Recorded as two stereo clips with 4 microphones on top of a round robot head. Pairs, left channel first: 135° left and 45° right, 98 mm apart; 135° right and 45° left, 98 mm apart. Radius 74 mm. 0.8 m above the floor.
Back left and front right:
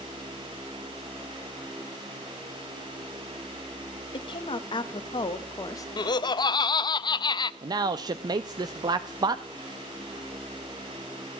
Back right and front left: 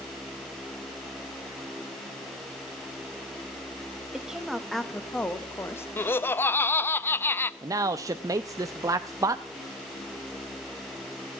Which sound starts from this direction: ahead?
A man speaking, at 7.6 s.